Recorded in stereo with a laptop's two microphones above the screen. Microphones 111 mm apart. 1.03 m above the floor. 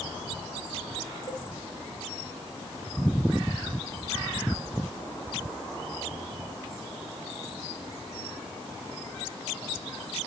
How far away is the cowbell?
About 5.5 m.